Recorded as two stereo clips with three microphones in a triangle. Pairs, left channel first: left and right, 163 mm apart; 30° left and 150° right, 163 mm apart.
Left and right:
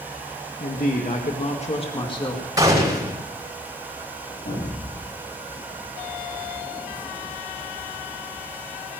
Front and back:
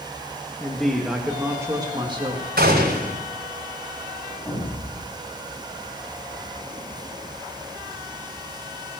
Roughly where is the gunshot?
Behind.